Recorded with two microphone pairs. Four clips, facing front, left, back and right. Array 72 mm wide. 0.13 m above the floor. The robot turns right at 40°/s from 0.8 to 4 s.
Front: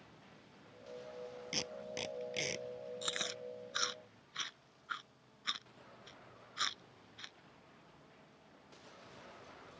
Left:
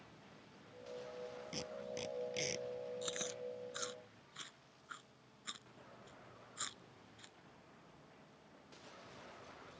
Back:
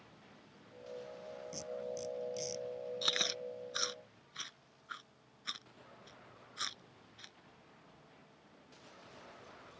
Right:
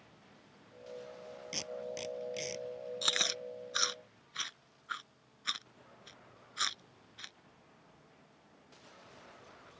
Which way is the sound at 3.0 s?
105° right.